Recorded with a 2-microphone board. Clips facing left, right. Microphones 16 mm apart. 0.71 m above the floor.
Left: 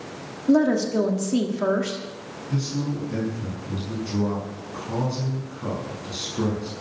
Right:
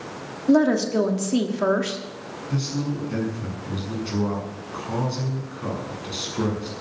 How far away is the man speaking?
About 7 m.